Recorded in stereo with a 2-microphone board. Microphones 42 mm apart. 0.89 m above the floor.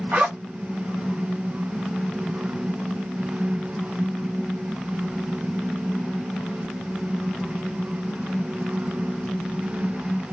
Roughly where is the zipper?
Right.